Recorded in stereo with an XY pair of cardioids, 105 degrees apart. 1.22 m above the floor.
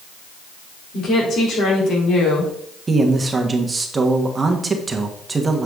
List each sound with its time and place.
0.9 s a woman speaking: 70° left, 3.5 m
2.9 s a man speaking: 30° right, 1.3 m